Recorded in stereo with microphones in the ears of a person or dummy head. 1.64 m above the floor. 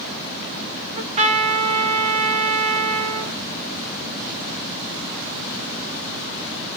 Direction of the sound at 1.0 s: 35° right (ahead or behind).